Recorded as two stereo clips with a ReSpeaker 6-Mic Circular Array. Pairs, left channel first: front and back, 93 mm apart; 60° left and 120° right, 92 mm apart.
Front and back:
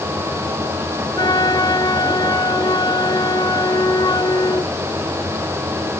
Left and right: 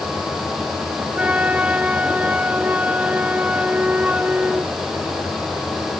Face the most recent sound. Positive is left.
turn(degrees=-45)